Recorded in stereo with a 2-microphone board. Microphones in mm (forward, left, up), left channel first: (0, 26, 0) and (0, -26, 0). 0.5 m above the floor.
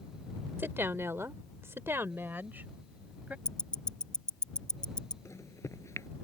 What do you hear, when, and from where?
0.6 s a woman speaking: 45° right (ahead or behind); by 3.4 s 30° right (ahead or behind)
3.5 s ticking: 15° left (ahead or behind)
5.2 s a microwave: 70° left (ahead or behind)